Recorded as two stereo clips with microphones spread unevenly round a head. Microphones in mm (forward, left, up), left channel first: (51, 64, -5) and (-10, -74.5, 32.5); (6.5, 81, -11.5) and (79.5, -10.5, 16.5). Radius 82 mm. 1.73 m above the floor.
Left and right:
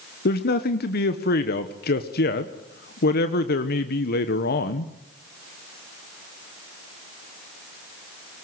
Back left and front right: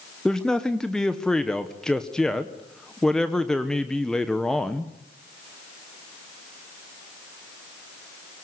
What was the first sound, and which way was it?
A man speaking, 40° left.